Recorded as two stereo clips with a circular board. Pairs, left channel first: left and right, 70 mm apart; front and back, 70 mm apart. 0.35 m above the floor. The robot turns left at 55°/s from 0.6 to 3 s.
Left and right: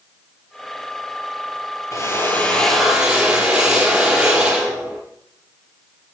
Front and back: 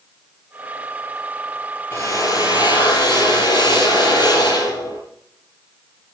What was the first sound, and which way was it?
A drill, 50° left.